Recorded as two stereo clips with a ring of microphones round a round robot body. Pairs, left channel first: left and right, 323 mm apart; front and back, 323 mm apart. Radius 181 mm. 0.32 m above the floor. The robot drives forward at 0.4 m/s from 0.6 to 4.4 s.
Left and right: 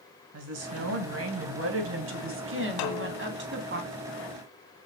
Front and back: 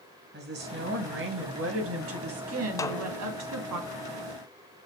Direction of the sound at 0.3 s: 125° right.